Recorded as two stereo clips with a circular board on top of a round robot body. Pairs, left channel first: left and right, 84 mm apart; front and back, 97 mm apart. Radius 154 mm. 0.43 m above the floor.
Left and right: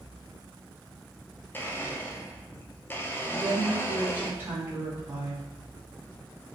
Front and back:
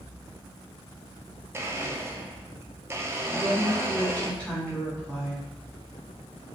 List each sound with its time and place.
1.5 s a blender: 140° left, 0.6 m
3.3 s a woman speaking: 60° right, 1.4 m